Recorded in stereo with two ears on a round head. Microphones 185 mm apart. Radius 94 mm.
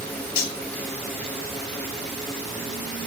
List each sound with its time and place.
0.4 s cutlery clinking: 75° left (ahead or behind), 1.5 m